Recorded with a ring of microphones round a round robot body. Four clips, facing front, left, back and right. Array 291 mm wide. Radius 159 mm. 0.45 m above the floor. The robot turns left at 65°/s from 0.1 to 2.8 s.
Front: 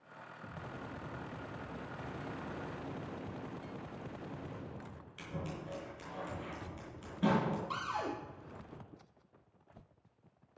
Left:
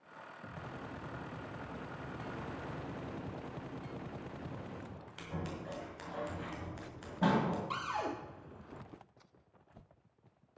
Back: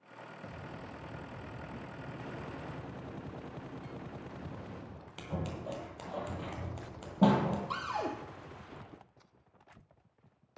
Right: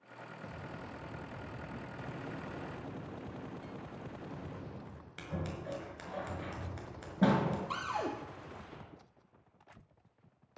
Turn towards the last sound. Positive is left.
turn(degrees=-140)